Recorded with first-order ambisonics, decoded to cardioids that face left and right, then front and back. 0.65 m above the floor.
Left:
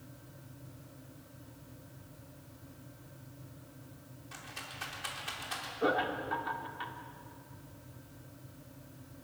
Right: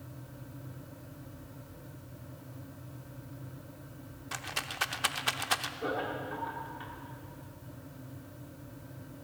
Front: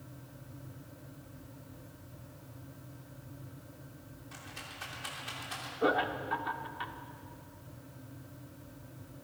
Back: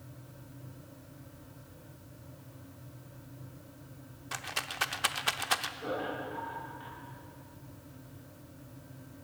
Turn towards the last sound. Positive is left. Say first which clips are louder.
# left 3 dB, front 6 dB
turn(degrees=25)